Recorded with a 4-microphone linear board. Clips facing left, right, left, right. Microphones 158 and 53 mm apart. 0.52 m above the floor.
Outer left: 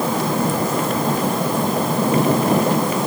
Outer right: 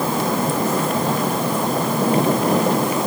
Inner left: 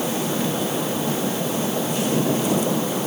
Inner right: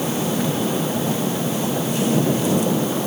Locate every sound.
Only background noise.